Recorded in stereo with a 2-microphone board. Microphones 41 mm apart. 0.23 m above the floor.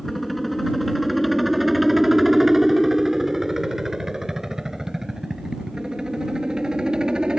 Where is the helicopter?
5° left (ahead or behind); by 7.4 s 20° right (ahead or behind).